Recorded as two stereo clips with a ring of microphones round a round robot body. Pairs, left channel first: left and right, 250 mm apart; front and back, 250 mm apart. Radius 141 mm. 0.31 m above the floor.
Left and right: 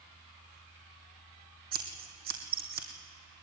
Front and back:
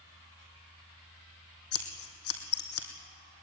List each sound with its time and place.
1.7 s scissors: 30° right, 2.5 m